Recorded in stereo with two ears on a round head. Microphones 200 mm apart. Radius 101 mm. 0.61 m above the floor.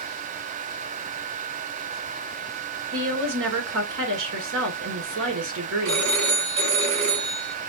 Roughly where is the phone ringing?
Right.